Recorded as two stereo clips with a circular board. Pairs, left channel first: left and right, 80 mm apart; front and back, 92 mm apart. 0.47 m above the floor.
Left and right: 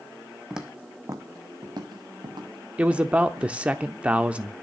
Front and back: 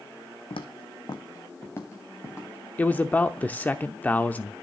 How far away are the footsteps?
About 1.3 m.